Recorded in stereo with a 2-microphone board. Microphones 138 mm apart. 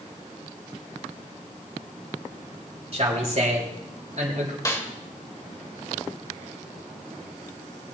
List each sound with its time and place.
2.9 s a man speaking: 50° right (ahead or behind), 4 m; by 4.5 s 60° right (ahead or behind), 3 m
4.7 s a snare drum: 25° left (ahead or behind), 1.4 m